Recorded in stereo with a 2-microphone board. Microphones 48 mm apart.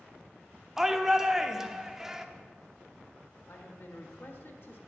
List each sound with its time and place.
0.8 s a shout: 10° right (ahead or behind), 0.9 m
3.5 s a man speaking: 55° left (ahead or behind), 1.6 m